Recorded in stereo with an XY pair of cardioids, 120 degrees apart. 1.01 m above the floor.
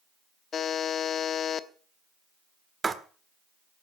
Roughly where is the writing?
Ahead right.